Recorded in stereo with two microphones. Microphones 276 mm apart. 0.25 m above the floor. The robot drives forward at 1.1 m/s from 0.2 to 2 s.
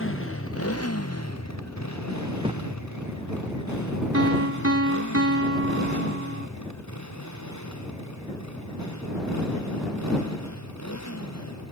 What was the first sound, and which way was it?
A motorcycle, 50° left (ahead or behind).